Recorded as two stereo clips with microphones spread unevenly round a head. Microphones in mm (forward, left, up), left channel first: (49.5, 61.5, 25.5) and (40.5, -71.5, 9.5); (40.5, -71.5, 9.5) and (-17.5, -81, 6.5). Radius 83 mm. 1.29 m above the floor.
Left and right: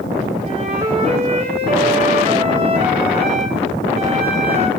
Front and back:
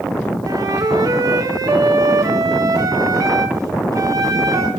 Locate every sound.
0.5 s a flute: 155° right, 1.1 m